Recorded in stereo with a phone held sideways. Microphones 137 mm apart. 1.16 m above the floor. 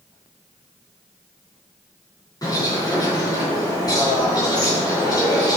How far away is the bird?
About 3.5 m.